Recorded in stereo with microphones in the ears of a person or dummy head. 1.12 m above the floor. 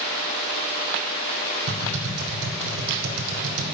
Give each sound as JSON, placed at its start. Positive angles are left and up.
{"t": 1.7, "sound": "typing on a keyboard", "side_deg": -70, "distance_m": 2.5}